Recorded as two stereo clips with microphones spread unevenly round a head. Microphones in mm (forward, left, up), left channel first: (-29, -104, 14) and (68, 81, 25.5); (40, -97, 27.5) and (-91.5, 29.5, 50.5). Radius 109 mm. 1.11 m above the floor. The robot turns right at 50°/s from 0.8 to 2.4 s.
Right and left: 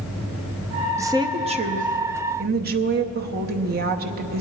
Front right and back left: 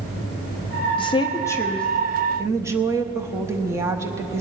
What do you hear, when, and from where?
1.0 s a woman speaking: 10° right, 0.8 m; by 4.4 s 60° left, 0.8 m